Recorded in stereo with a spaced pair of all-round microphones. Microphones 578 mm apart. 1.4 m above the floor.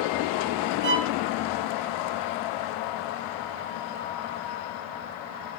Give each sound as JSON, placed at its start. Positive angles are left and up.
{"t": 0.8, "sound": "a violin", "side_deg": -65, "distance_m": 0.7}